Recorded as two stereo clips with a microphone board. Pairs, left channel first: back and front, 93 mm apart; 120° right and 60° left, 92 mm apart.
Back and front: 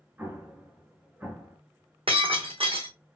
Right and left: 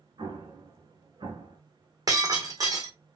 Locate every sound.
0.2 s an explosion: 70° left, 1.9 m
2.1 s breaking glass: 10° left, 2.5 m